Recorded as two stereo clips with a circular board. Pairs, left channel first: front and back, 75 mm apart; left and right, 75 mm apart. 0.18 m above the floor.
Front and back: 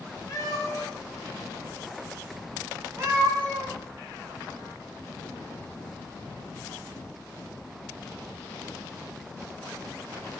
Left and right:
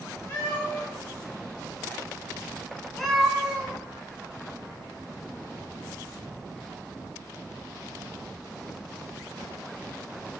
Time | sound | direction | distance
0.3 | a cat meowing | 35° left | 1.2 m